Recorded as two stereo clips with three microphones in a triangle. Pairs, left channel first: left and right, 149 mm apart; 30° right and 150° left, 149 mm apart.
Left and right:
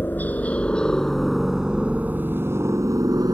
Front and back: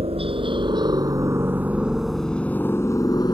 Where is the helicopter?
160° left; by 3.3 s 55° right.